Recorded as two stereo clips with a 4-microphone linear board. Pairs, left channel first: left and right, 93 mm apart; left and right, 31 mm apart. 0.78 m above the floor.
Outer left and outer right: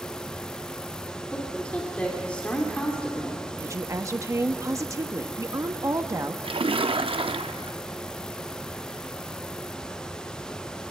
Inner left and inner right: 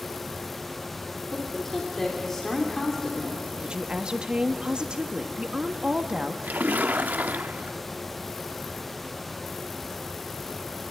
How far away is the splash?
About 0.5 m.